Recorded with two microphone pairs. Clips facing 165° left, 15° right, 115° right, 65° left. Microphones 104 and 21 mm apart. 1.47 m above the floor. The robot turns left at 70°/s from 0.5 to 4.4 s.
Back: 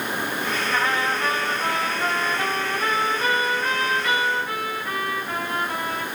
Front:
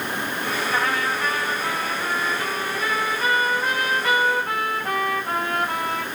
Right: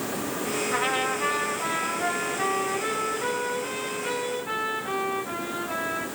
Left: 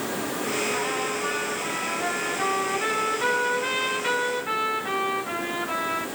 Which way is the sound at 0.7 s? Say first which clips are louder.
Back 1 dB, right 1 dB; 85° right.